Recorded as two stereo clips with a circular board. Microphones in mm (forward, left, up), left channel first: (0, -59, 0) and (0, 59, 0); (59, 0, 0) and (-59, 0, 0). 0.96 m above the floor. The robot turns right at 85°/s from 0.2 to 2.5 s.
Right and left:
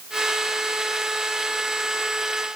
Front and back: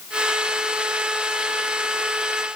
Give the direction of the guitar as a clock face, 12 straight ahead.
No guitar in this recording.